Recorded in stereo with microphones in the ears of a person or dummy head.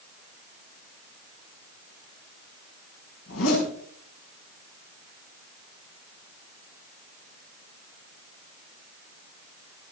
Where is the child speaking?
No child speaking in this recording.